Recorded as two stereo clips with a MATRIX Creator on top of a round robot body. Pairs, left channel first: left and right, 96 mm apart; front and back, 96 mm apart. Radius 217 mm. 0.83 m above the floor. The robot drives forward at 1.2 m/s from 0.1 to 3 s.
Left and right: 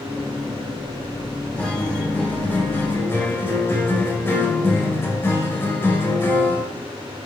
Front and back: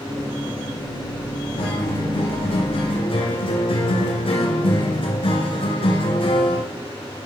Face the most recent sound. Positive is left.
turn(degrees=25)